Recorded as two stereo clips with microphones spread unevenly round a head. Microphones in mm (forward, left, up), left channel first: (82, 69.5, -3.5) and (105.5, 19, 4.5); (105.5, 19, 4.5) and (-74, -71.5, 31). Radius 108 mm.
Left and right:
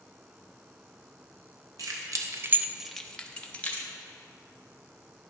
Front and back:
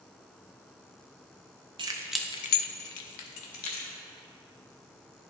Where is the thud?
I don't hear a thud.